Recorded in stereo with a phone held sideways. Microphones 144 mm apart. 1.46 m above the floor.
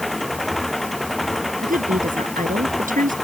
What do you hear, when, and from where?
0.0 s an engine running: centre (ahead or behind)
1.6 s a woman speaking: 65° right (ahead or behind)